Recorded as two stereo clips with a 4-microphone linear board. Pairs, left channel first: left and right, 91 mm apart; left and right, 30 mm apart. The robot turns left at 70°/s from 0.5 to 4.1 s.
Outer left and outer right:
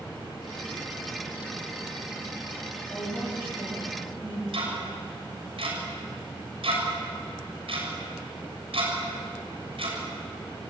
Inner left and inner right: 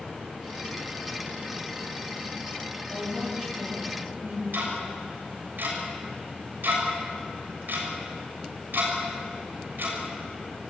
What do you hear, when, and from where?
2.9 s a woman speaking: 20° left, 8.5 m; by 4.4 s 65° right, 8.5 m
4.5 s ticking: 85° right, 6.5 m